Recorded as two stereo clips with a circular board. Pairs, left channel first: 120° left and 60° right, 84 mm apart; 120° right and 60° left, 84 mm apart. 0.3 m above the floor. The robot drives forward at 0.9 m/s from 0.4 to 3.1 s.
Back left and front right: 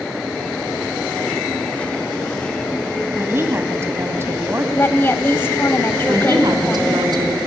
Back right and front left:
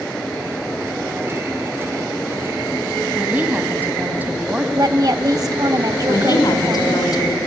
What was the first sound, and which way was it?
A woman speaking, 5° right.